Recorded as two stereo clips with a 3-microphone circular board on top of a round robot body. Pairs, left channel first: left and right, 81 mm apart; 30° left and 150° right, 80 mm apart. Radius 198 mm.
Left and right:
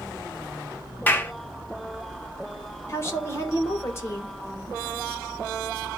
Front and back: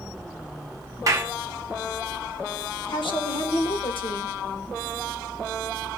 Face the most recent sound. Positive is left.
turn(degrees=35)